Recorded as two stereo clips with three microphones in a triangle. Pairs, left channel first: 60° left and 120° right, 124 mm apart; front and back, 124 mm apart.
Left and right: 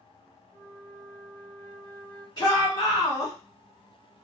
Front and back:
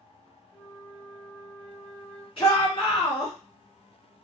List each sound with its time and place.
0.5 s a flute: 40° left, 1.5 m
2.4 s a shout: 15° left, 1.8 m